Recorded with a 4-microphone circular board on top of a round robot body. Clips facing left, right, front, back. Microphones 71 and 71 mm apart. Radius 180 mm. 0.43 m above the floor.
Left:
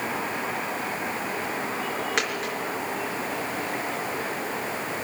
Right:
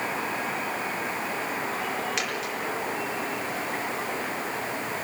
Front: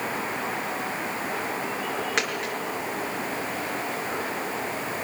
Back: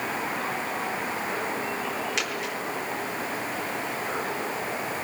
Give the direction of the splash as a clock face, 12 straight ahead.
No splash in this recording.